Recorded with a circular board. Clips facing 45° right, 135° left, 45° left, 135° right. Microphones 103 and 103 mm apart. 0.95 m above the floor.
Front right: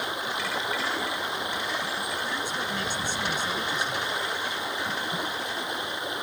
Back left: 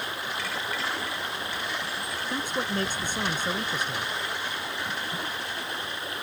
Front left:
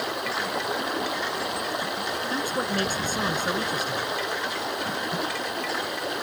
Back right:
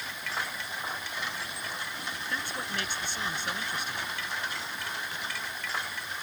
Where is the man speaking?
90° left.